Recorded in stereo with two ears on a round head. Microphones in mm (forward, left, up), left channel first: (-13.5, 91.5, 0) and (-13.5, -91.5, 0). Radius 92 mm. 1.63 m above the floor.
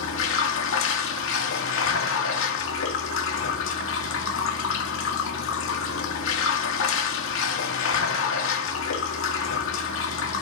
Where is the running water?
75° left (ahead or behind), 2 m.